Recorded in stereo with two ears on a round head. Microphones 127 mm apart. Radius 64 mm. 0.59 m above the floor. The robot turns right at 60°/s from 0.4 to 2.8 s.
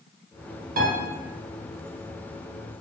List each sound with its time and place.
0.8 s a piano: 60° right (ahead or behind), 0.8 m; by 1.0 s 55° right (ahead or behind), 0.8 m